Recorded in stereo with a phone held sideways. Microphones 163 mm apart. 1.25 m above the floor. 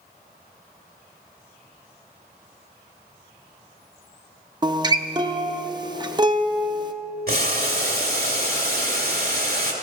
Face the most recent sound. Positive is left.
turn(degrees=-65)  # may be behind; listen again after turning